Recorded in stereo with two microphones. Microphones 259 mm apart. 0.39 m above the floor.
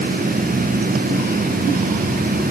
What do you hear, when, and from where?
Only background noise.